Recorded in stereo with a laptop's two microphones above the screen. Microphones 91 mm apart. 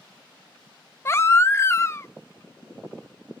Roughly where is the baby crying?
Left.